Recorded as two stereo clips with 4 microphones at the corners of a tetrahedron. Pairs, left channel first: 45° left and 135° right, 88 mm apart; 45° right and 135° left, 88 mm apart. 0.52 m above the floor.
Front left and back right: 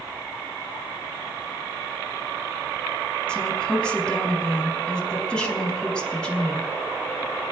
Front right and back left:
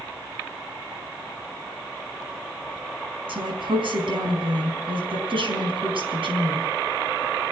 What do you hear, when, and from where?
3.3 s a woman speaking: 125° left, 4.5 m